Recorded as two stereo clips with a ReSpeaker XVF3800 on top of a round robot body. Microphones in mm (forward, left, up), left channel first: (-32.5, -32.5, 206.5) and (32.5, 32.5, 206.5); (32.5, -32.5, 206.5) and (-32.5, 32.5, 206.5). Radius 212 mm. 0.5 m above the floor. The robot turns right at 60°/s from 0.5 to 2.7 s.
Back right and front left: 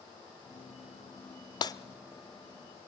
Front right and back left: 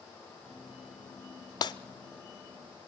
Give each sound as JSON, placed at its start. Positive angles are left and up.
{"t": 1.6, "sound": "breaking glass", "azimuth_deg": -90, "distance_m": 0.7}